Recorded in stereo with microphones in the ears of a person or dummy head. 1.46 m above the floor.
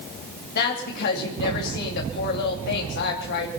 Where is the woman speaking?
60° left (ahead or behind), 2.5 m.